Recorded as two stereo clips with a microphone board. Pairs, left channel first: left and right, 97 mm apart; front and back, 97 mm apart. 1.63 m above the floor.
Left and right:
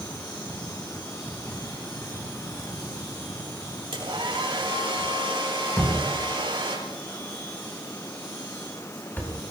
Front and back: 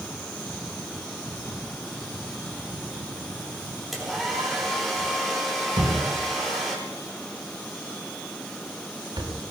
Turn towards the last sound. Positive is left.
turn(degrees=155)